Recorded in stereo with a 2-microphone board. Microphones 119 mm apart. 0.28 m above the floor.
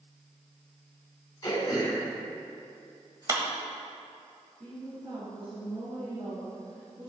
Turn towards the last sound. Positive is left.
turn(degrees=-60)  # may be behind; listen again after turning